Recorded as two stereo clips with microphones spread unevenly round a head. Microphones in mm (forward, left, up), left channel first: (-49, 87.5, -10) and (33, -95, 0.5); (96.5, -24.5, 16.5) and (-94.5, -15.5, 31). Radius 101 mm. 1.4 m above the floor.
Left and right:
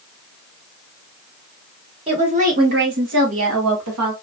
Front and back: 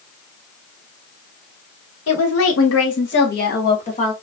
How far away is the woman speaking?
About 1.9 m.